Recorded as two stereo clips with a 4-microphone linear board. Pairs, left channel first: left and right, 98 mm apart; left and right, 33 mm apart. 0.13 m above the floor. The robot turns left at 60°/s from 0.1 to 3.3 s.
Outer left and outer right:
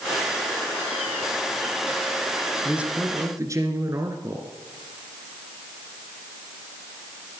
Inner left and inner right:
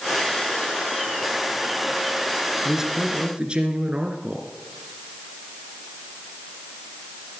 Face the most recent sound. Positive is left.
turn(degrees=-45)